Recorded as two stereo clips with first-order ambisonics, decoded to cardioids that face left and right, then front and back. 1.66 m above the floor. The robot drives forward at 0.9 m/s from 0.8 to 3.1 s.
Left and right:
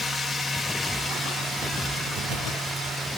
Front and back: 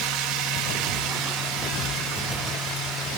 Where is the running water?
175° left, 0.9 m; by 3.2 s straight behind, 3 m.